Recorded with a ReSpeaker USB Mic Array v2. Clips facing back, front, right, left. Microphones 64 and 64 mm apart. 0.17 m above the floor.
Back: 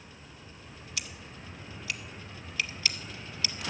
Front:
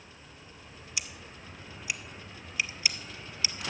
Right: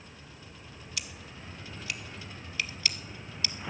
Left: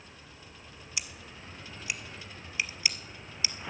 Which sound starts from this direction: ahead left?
Scissors, at 1.0 s.